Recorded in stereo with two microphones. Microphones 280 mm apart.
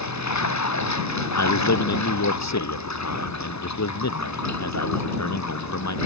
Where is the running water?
80° left.